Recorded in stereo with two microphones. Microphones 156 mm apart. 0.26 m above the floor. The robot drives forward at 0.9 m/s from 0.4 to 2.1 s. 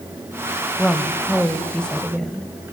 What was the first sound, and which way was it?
A woman speaking, 5° left (ahead or behind).